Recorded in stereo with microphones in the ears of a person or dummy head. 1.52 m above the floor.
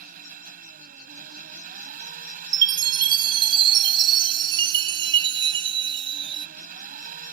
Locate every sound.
0.0 s an engine running: 50° right (ahead or behind)
2.5 s a chime: 25° right (ahead or behind)